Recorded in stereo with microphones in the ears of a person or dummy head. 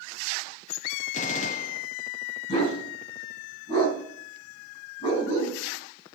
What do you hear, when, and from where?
1.1 s a gunshot: 45° left (ahead or behind), 0.8 m
2.5 s a dog barking: 45° left (ahead or behind), 3.5 m